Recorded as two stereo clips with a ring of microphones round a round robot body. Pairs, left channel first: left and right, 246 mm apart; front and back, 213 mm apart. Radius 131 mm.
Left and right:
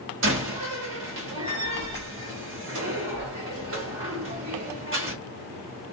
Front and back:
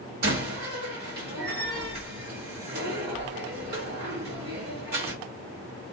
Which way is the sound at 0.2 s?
130° right.